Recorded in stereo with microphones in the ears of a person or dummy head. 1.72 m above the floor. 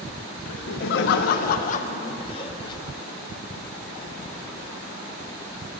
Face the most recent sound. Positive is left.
turn(degrees=25)  # may be behind; listen again after turning